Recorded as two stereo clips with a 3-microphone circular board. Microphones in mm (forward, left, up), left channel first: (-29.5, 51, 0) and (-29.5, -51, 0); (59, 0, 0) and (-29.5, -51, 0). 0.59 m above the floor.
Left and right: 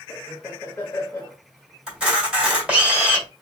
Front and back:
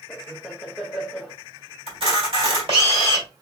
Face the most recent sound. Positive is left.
turn(degrees=-170)